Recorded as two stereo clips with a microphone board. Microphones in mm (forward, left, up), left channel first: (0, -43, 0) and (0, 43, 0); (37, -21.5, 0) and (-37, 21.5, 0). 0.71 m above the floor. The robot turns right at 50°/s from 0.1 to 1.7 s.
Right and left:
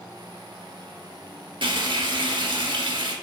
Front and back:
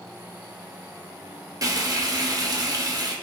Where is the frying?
100° left, 0.6 m; by 3.1 s 105° left, 0.6 m.